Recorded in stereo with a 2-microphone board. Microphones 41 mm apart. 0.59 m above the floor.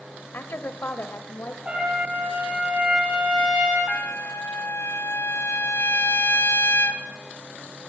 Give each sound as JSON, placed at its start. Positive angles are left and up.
{"t": 0.3, "sound": "a woman speaking", "side_deg": 60, "distance_m": 2.0}
{"t": 1.6, "sound": "a trumpet", "side_deg": -30, "distance_m": 6.5}
{"t": 3.9, "sound": "a trumpet", "side_deg": 75, "distance_m": 2.0}